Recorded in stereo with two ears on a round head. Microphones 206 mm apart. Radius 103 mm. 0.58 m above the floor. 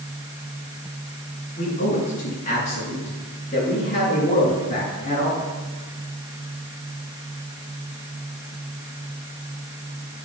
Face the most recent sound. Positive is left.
turn(degrees=25)  # may be behind; listen again after turning